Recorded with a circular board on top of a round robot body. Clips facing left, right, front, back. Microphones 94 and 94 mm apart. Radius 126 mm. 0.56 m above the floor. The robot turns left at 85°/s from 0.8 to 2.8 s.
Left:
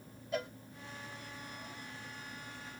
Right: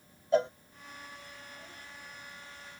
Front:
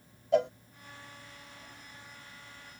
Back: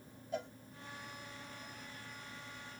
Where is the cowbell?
25° right.